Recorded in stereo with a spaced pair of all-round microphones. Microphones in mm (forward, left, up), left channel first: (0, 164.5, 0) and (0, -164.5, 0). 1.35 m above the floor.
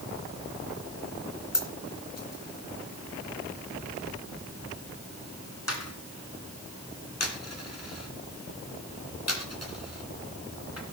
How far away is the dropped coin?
About 2.5 m.